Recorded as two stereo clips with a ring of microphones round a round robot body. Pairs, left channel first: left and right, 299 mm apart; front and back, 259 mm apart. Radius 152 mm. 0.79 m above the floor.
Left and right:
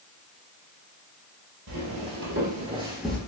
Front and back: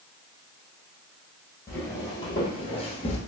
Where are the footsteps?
80° right, 1.2 m; by 3.2 s 15° left, 0.8 m.